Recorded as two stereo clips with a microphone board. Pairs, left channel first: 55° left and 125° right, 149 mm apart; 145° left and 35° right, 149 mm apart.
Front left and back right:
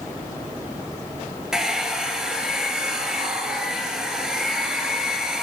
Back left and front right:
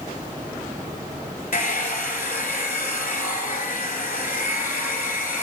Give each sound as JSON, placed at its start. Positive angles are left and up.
{"t": 1.5, "sound": "a hair dryer", "azimuth_deg": 150, "distance_m": 0.7}